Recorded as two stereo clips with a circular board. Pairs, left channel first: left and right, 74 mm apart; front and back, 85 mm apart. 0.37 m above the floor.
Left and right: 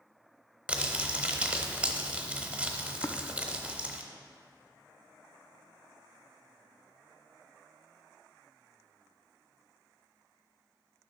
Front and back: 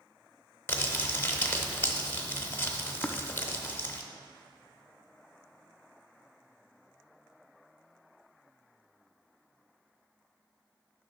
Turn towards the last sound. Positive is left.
turn(degrees=75)